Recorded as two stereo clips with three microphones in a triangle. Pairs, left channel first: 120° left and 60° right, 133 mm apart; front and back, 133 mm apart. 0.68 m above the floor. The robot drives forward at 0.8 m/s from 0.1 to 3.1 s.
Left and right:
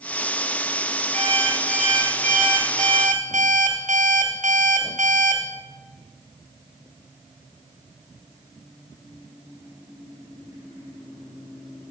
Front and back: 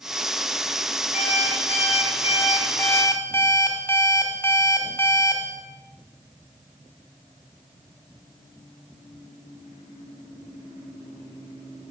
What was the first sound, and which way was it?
An alarm clock, 30° right.